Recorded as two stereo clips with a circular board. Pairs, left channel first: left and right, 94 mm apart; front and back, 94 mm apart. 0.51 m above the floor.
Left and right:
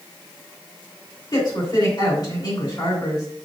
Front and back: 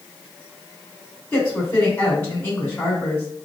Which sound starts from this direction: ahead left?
A woman speaking, at 1.3 s.